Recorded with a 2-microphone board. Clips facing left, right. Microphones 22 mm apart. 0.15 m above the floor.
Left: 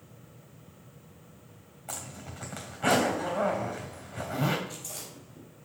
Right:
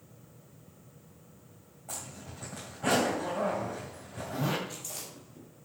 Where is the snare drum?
No snare drum in this recording.